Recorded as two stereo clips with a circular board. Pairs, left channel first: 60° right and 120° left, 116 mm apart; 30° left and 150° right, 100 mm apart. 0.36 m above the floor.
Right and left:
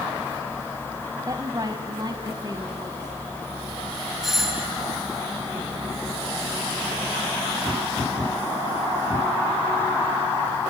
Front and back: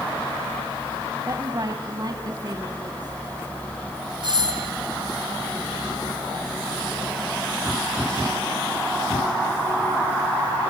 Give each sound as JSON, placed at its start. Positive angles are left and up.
{"t": 1.3, "sound": "a woman speaking", "azimuth_deg": 170, "distance_m": 1.6}
{"t": 4.2, "sound": "a doorbell", "azimuth_deg": -155, "distance_m": 2.5}